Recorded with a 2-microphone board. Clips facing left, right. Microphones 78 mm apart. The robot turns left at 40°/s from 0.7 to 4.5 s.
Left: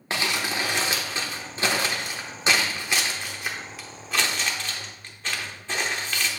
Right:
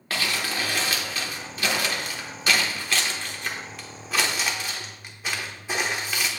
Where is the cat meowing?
No cat meowing in this recording.